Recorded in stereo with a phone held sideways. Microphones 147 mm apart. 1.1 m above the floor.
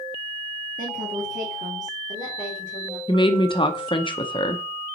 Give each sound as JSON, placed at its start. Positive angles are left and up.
{"t": 0.8, "sound": "a woman speaking", "side_deg": -65, "distance_m": 1.6}
{"t": 3.1, "sound": "a woman speaking", "side_deg": 35, "distance_m": 0.7}